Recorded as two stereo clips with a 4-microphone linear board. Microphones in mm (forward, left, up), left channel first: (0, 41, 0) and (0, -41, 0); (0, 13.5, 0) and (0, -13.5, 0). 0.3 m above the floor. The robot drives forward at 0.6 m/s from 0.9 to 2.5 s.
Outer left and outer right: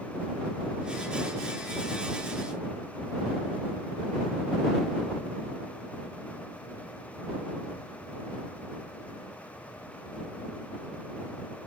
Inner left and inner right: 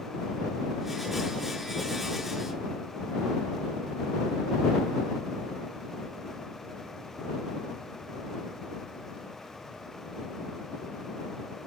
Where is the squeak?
I don't hear a squeak.